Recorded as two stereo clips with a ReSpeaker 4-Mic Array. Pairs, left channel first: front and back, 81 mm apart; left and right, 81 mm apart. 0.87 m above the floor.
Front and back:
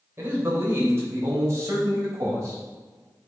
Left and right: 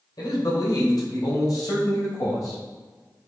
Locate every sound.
0.2 s a man speaking: 120° left, 3.5 m; by 2.6 s 135° left, 4.5 m